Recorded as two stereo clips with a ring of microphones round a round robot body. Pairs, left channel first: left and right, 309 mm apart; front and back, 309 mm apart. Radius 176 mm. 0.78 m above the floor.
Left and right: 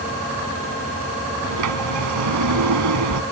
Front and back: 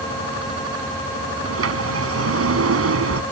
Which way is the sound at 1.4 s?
135° right.